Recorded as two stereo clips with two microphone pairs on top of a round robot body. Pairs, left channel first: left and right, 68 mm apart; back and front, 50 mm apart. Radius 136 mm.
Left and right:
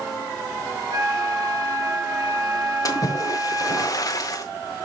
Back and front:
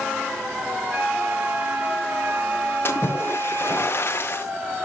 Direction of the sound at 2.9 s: 130° left.